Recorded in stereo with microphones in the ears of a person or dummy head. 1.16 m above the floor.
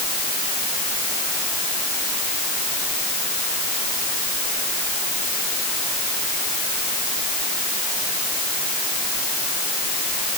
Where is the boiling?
I don't hear boiling.